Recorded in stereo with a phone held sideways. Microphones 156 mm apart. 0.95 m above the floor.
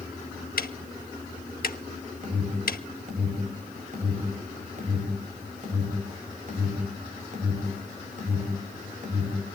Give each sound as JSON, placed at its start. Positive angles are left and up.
{"t": 0.6, "sound": "ticking", "side_deg": 70, "distance_m": 1.0}
{"t": 2.2, "sound": "an alarm", "side_deg": -55, "distance_m": 5.5}